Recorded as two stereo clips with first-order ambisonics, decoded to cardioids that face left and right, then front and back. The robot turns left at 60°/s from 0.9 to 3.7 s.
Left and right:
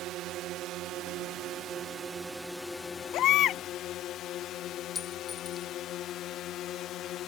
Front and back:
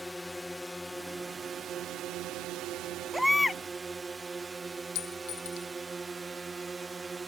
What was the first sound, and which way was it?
A drone, 85° right.